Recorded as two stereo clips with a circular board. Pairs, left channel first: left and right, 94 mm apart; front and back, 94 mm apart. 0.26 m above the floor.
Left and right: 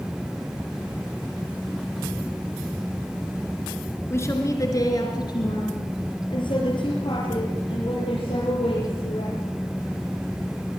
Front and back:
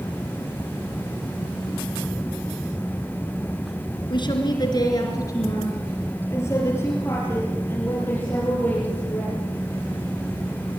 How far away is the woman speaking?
About 3.5 m.